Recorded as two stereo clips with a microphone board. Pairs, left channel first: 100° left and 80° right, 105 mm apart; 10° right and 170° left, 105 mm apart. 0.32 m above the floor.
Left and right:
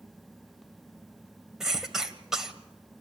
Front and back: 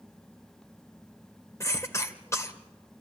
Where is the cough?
Straight ahead, 1.7 m.